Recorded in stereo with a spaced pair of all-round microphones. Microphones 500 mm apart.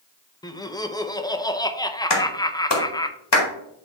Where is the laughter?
10° left (ahead or behind), 0.6 m.